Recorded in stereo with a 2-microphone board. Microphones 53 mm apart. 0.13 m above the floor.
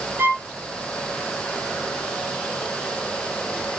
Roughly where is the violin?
Right.